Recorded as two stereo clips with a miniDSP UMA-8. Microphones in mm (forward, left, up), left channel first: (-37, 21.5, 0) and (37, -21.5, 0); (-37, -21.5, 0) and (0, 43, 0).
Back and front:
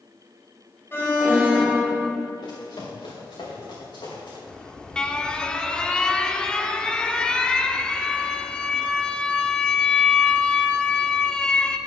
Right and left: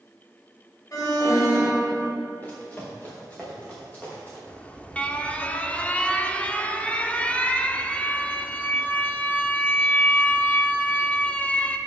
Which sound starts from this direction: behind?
Running footsteps, at 2.4 s.